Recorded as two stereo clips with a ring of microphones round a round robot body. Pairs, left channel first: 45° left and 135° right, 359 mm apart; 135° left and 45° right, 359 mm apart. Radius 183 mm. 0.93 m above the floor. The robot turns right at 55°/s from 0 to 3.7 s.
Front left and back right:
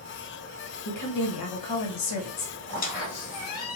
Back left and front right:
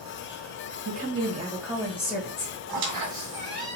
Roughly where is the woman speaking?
Ahead.